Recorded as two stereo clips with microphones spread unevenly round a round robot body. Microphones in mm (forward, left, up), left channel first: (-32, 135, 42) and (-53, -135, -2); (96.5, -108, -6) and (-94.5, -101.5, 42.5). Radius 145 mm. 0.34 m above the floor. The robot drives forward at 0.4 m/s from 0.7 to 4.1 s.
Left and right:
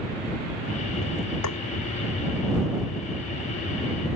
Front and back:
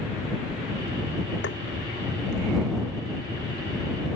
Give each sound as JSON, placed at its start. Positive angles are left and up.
{"t": 1.4, "sound": "tapping", "azimuth_deg": 50}